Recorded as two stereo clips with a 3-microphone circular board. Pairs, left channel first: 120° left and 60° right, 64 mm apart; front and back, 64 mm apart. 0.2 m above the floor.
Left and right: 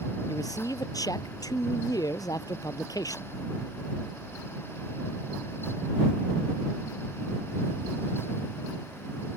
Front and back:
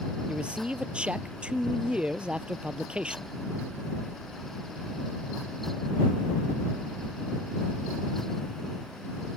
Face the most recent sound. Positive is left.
turn(degrees=105)